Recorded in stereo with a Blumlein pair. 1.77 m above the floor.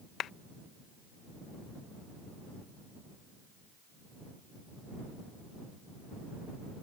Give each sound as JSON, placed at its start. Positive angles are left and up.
{"t": 0.2, "sound": "a clap", "azimuth_deg": 30}